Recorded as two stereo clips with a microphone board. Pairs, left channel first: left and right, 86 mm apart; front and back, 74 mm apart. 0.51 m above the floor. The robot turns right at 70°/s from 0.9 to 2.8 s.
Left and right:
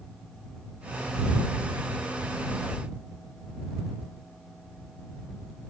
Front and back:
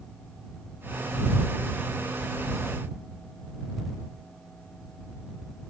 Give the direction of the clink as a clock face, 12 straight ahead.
I don't hear a clink.